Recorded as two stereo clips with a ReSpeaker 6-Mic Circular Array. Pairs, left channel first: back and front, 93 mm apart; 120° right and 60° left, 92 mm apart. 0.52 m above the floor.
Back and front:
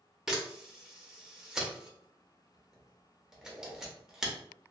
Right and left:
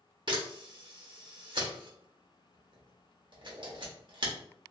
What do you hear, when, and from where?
0.3 s a camera shutter: 85° left, 0.8 m